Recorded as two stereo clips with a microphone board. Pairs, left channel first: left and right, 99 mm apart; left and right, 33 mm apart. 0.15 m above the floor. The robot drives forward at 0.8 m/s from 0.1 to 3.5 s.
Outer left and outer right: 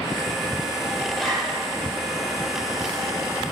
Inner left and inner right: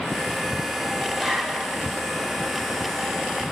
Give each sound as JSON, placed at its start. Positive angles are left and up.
{"t": 1.1, "sound": "a zipper", "side_deg": 5, "distance_m": 5.0}